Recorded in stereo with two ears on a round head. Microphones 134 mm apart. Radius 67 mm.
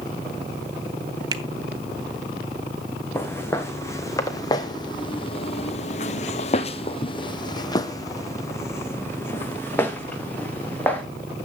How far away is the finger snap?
About 1.0 m.